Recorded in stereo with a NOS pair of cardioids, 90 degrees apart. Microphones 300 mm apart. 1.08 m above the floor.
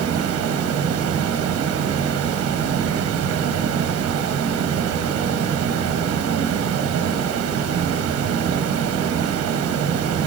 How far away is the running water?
About 0.9 m.